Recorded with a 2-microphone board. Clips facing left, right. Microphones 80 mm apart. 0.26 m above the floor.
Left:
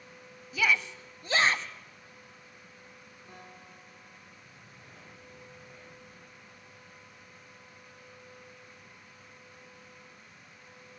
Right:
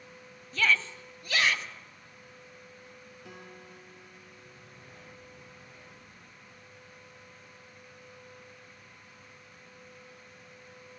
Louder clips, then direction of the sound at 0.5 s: Even; 5° left (ahead or behind).